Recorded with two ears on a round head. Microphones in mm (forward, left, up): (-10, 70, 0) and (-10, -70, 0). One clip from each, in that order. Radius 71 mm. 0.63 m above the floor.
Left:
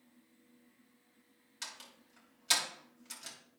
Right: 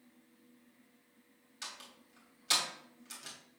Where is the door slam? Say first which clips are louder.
Even; 15° left (ahead or behind), 3 m.